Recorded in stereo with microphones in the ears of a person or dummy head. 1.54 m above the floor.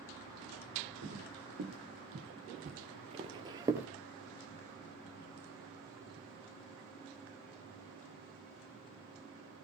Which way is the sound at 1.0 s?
60° right (ahead or behind).